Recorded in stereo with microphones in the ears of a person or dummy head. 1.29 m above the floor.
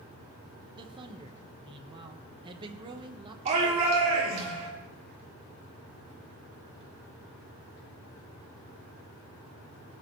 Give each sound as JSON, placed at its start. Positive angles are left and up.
{"t": 0.8, "sound": "a man speaking", "side_deg": -30, "distance_m": 1.2}
{"t": 3.5, "sound": "a shout", "side_deg": -40, "distance_m": 4.0}